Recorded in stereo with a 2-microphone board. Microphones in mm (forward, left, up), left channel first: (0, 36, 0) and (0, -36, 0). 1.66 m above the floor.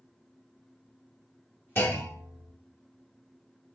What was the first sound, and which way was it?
A clunk, 30° left (ahead or behind).